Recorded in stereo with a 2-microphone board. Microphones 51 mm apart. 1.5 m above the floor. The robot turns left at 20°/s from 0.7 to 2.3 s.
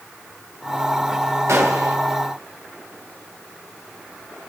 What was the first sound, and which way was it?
A gunshot, 80° right.